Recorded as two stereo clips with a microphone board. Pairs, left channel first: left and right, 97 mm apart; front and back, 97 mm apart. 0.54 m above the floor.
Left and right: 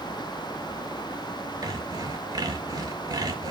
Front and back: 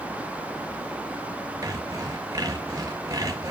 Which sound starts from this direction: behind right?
Sawing, at 1.6 s.